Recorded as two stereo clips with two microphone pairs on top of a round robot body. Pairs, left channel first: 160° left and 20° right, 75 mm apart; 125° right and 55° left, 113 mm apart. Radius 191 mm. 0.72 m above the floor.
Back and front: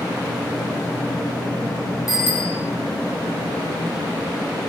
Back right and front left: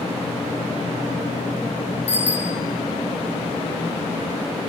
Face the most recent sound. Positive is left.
turn(degrees=-105)